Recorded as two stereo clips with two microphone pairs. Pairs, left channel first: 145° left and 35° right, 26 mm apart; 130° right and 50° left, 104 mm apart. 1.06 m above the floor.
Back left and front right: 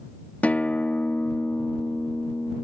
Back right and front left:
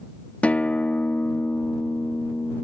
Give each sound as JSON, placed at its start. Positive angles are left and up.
{"t": 0.4, "sound": "a guitar", "azimuth_deg": 155}